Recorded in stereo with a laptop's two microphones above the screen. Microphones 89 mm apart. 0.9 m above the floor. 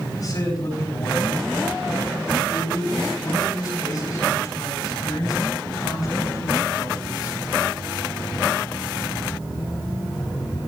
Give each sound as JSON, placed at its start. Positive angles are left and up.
{"t": 0.1, "sound": "a man speaking", "side_deg": 45, "distance_m": 9.0}